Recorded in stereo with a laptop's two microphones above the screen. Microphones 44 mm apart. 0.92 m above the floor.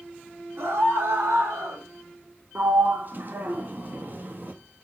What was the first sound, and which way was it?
A scream, 65° right (ahead or behind).